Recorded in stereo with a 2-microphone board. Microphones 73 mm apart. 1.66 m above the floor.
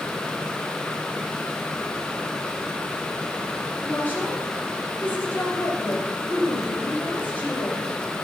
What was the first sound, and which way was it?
A woman speaking, 25° left (ahead or behind).